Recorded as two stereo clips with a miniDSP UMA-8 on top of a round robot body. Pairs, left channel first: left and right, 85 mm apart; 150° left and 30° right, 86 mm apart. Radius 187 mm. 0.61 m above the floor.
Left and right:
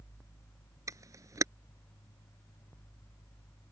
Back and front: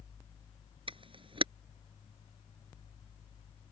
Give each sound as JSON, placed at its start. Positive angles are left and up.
{"t": 0.9, "sound": "a camera shutter", "azimuth_deg": -35}